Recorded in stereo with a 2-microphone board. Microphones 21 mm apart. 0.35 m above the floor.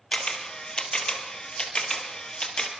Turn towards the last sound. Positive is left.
turn(degrees=40)  # may be behind; listen again after turning